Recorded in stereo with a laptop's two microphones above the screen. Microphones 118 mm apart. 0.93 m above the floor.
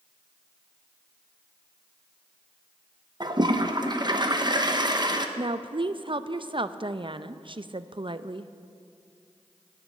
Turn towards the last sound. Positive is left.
turn(degrees=-45)  # may be behind; listen again after turning